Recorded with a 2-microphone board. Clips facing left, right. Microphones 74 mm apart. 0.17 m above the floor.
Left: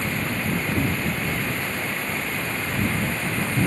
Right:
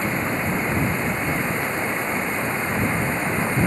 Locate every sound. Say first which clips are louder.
0.0 s running water: right 3 dB; 20° right (ahead or behind)